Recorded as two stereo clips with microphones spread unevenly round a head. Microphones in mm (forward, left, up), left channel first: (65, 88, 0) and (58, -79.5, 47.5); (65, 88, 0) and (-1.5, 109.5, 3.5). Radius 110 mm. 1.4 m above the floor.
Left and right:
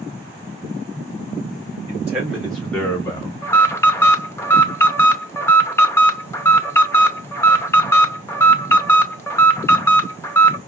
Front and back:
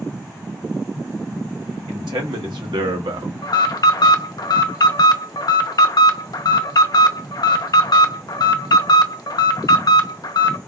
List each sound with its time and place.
1.9 s a man speaking: 175° right, 1.3 m; by 3.3 s 150° left, 0.8 m
3.4 s an alarm: 10° left, 0.7 m